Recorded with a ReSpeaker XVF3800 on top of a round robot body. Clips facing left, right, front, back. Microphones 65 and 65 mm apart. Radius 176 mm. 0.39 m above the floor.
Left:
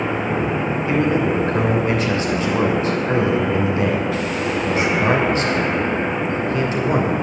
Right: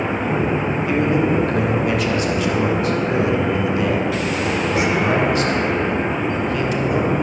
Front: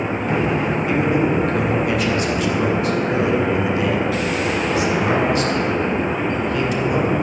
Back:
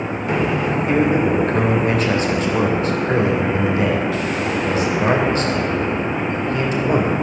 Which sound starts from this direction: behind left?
A man speaking, at 0.9 s.